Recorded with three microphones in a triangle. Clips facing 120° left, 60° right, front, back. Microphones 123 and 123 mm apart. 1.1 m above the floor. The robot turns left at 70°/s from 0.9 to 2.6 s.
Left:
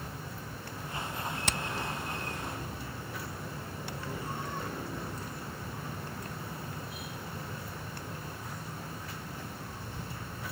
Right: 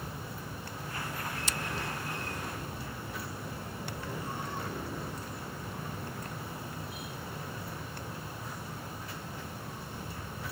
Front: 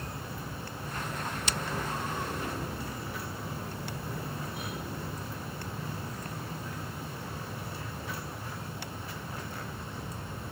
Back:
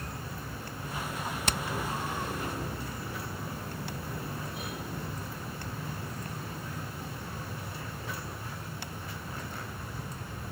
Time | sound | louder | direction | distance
1.5 | hammering | left 3 dB, back 4 dB | 145° left | ?